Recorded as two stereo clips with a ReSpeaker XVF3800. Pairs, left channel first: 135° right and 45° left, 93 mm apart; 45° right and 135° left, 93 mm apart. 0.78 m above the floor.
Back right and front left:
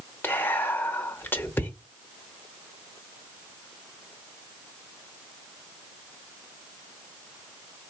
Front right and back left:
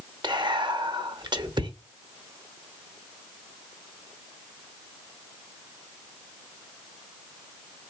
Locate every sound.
0.2 s whispering: 160° left, 0.9 m